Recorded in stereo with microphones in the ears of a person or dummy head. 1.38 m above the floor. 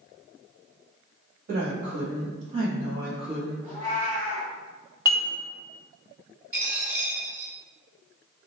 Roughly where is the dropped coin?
Centre.